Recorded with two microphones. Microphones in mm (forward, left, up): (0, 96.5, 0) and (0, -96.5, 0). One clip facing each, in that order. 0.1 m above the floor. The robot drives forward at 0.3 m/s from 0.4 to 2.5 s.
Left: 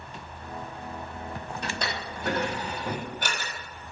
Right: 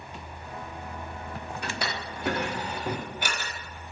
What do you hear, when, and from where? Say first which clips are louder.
1.6 s a drawer: even; 10° right (ahead or behind), 0.8 m